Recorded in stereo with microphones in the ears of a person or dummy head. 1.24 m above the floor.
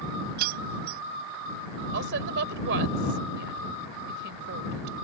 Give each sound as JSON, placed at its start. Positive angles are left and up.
{"t": 0.4, "sound": "keys jangling", "side_deg": -55}
{"t": 1.9, "sound": "a woman speaking", "side_deg": -70}